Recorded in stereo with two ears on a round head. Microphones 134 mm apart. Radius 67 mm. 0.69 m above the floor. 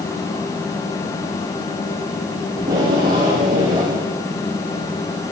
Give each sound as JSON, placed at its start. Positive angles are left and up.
{"t": 2.6, "sound": "tape being pulled", "side_deg": -35, "distance_m": 8.5}